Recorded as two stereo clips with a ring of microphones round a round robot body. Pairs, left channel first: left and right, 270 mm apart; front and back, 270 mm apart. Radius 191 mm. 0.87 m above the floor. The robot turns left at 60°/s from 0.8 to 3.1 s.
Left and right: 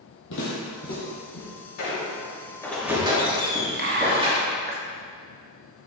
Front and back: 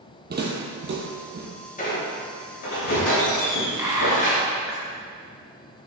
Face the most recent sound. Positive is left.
turn(degrees=-105)